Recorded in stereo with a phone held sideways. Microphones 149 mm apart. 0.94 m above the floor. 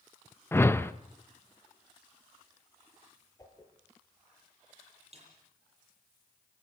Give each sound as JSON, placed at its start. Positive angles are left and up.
{"t": 0.5, "sound": "a whoosh", "side_deg": 15, "distance_m": 0.7}
{"t": 3.4, "sound": "a whoosh", "side_deg": 25, "distance_m": 5.0}
{"t": 5.1, "sound": "a snare drum", "side_deg": -45, "distance_m": 8.0}